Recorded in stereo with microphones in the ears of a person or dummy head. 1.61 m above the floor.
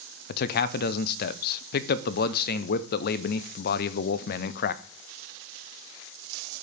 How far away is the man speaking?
About 0.6 m.